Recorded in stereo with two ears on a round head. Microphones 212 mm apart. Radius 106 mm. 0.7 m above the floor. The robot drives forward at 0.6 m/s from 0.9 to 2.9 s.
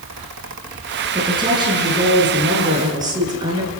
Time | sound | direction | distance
1.1 | a woman speaking | 20° right (ahead or behind) | 7 m